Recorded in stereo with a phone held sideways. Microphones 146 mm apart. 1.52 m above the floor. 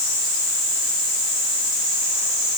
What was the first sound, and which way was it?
Only background noise.